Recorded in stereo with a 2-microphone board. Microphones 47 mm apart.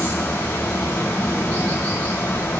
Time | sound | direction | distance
0.0 | running water | 70° left (ahead or behind) | 3 m